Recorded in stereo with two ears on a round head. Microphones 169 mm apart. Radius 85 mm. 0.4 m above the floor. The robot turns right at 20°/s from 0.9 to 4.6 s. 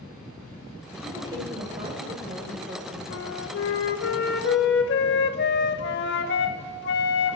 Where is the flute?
60° left (ahead or behind), 0.7 m.